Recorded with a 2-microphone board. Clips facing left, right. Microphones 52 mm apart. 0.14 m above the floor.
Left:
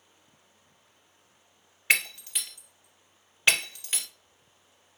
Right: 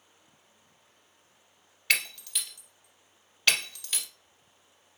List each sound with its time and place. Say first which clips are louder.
1.9 s breaking glass: left 3 dB; 20° left (ahead or behind), 1.7 m